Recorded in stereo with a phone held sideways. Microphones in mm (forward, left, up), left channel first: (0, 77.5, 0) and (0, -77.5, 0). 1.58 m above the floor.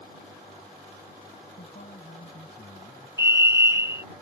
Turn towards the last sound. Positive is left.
turn(degrees=-20)  # may be behind; listen again after turning